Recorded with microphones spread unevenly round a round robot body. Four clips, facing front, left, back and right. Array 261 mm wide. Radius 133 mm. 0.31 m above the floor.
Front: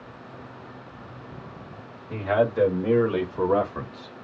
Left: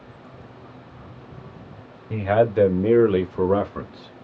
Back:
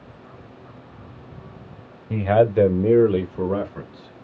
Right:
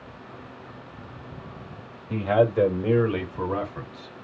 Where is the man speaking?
170° left, 1.6 m; by 4.1 s 55° left, 1.5 m.